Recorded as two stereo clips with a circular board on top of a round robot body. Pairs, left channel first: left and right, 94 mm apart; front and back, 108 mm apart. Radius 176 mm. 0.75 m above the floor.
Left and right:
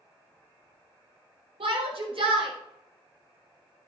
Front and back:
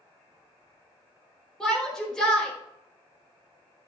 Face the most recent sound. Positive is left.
turn(degrees=-85)